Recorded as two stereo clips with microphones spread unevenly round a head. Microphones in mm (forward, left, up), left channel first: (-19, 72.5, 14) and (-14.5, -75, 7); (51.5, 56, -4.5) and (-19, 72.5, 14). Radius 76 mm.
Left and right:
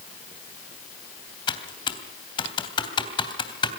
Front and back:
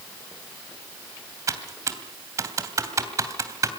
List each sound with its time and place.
1.5 s typing on a keyboard: 145° left, 3 m